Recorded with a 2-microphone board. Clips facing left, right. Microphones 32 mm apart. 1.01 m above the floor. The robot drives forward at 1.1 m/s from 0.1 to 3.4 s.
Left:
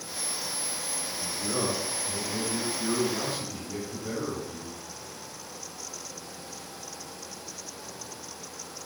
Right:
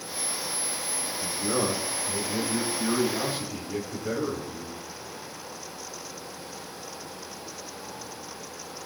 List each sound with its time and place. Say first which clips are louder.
1.2 s a man speaking: right 3 dB; 25° right (ahead or behind), 2 m; by 4.8 s 15° right (ahead or behind), 4.5 m